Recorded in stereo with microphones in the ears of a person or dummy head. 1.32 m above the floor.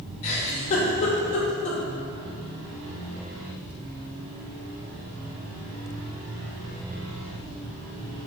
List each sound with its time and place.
0.2 s a giggle: 40° left (ahead or behind), 1.6 m